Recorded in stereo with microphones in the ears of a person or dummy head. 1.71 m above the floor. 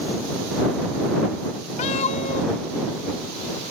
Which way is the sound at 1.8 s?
35° left (ahead or behind).